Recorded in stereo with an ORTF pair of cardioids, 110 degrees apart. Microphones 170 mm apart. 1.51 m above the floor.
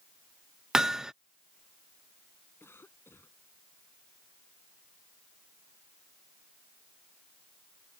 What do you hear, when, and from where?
0.7 s hammering: 5° right
2.6 s a cough: 10° left